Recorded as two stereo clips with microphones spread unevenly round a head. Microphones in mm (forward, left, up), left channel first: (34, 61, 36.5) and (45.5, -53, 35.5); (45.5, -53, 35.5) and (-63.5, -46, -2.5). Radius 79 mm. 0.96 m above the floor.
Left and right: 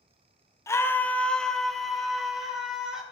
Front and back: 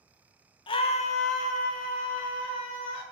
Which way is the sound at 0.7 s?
50° left.